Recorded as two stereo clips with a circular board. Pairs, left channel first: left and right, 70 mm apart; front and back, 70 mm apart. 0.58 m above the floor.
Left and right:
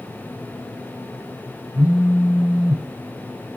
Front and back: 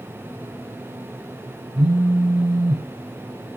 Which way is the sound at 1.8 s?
165° right.